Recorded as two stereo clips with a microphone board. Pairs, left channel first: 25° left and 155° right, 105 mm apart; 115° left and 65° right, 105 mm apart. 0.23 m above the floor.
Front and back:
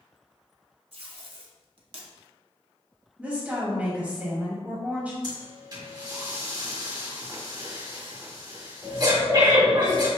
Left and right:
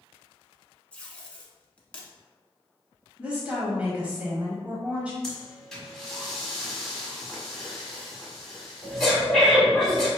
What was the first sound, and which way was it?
Tape being pulled, 170° right.